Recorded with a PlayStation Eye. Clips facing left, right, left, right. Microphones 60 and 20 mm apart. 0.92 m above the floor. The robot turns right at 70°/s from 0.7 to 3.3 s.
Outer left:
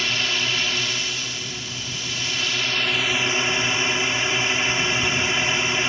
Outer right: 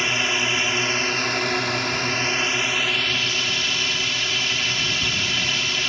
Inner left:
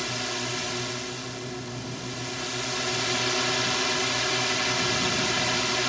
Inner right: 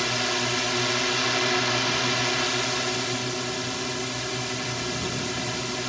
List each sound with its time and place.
0.0 s a drone: 155° right; by 5.9 s 25° left